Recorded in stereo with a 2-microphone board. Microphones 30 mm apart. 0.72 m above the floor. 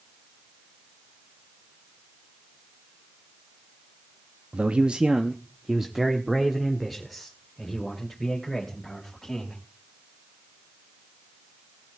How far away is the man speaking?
About 0.7 m.